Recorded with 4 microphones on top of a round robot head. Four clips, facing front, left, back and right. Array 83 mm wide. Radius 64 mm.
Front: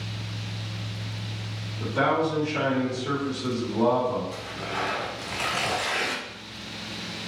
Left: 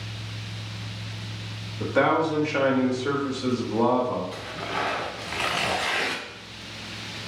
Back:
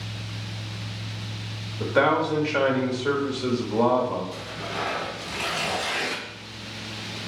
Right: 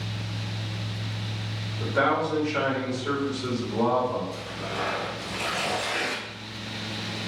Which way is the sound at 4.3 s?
70° left.